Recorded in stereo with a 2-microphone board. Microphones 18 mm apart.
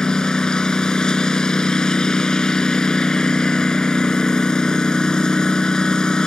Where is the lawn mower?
50° left (ahead or behind).